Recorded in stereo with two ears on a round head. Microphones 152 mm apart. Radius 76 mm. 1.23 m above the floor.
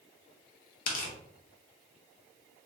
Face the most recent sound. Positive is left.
turn(degrees=50)  # may be behind; listen again after turning